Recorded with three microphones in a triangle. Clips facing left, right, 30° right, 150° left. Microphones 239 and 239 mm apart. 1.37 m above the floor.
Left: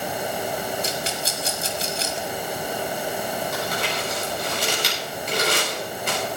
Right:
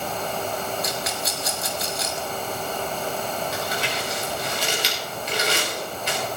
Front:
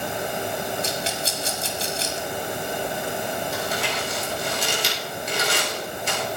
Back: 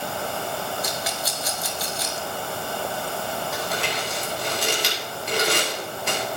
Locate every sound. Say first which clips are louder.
0.8 s a rattle: left 1 dB, front 2 dB; 30° left, 1.6 m
3.5 s crumpling: left 1 dB, front 1 dB; 125° left, 5 m